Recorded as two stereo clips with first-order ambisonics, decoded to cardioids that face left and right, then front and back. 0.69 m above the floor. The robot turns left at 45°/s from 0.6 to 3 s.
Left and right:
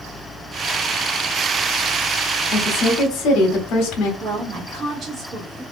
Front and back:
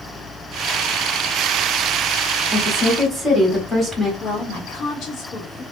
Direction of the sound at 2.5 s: 100° left.